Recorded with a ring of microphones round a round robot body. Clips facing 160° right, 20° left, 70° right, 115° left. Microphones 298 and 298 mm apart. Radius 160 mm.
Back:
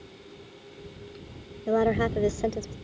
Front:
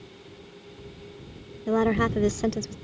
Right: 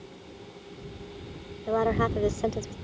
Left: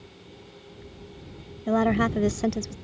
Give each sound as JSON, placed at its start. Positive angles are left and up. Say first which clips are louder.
{"t": 1.7, "sound": "a woman speaking", "louder": "front 1 dB, left 3 dB", "azimuth_deg": 95}